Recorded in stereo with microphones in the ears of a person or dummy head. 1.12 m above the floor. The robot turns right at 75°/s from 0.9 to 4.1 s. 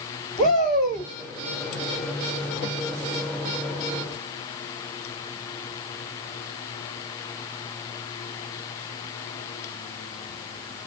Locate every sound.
0.4 s a shout: 35° left (ahead or behind), 1.8 m; by 1.1 s 20° left (ahead or behind), 1.8 m